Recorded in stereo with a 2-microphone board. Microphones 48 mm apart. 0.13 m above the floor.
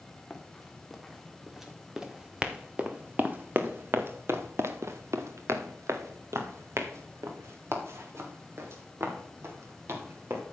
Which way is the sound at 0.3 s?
5° left (ahead or behind).